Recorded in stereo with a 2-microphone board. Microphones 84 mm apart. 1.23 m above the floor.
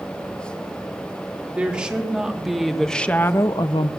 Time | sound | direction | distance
1.5 | a woman speaking | 15° right (ahead or behind) | 3 m